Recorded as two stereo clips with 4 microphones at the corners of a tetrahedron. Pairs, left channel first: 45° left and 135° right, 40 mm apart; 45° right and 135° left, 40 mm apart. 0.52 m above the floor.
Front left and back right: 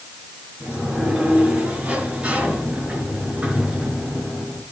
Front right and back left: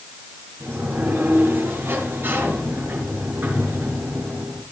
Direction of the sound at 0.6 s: 165° left.